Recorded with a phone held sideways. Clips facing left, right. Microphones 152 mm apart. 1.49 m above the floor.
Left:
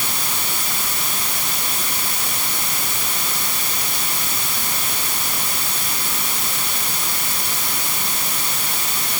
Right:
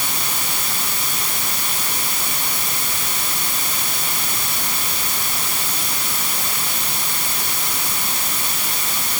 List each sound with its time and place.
Only background noise.